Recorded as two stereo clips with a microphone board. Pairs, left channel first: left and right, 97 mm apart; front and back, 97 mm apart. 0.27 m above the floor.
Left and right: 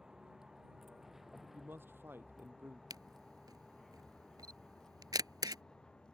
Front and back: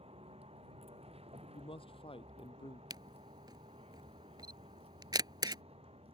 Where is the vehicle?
175° right; by 6.1 s 170° left.